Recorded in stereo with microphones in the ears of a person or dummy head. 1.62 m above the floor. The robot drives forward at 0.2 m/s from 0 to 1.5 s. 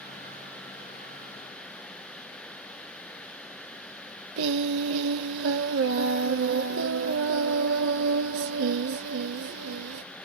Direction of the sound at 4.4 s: 70° right (ahead or behind).